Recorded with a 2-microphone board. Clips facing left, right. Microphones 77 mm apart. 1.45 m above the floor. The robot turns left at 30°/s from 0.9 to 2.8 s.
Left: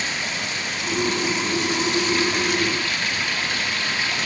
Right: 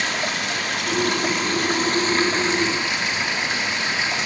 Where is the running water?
100° right, 3 m; by 4.3 s 155° right, 3 m.